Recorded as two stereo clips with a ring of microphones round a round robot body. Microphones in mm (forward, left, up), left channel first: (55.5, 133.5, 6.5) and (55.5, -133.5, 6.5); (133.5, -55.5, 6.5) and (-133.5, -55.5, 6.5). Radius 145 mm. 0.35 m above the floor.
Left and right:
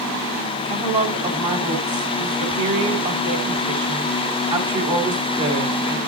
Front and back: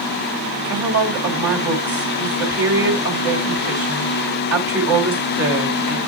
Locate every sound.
0.7 s a woman speaking: 160° right, 2.5 m